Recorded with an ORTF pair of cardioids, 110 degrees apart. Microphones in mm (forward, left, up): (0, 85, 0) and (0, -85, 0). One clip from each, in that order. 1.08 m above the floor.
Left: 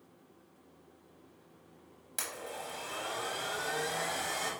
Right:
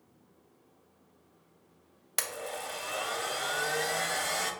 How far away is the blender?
About 0.7 m.